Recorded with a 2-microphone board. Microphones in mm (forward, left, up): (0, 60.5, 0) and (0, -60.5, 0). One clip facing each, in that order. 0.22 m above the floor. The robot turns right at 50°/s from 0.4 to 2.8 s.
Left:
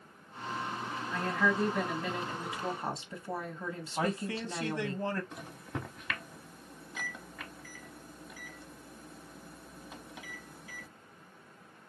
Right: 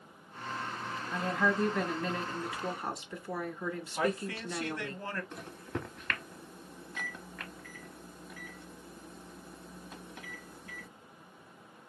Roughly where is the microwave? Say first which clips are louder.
Right 2 dB; centre.